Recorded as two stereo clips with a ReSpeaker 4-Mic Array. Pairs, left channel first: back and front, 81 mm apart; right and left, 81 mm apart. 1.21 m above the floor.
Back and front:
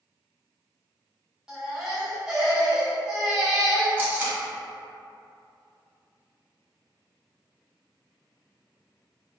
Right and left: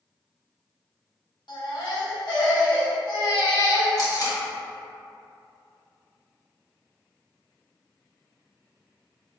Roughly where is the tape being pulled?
Ahead right.